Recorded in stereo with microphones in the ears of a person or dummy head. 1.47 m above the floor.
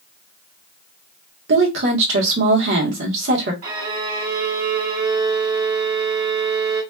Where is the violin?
50° right (ahead or behind), 1.4 m.